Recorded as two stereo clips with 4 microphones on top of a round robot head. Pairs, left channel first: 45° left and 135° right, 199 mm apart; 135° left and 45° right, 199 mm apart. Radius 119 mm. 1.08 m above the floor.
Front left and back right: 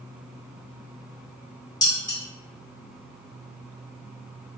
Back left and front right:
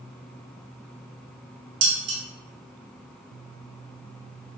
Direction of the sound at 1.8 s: 30° right.